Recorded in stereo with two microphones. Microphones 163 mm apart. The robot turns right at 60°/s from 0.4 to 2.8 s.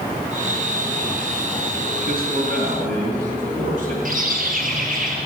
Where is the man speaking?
105° right, 3.5 m; by 4.0 s 60° right, 3.5 m.